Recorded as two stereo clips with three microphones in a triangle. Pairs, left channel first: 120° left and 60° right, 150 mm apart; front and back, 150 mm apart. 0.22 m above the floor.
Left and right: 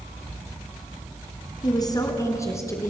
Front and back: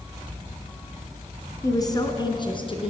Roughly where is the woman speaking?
Ahead left.